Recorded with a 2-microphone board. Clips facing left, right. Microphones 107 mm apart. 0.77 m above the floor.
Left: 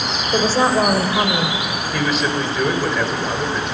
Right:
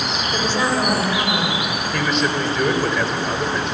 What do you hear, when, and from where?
0.3 s a woman speaking: 40° left (ahead or behind), 2.5 m
1.9 s a man speaking: centre (ahead or behind), 2.5 m